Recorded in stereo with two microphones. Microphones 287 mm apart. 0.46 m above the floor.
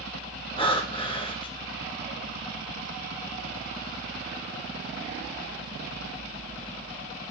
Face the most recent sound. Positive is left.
turn(degrees=20)  # may be behind; listen again after turning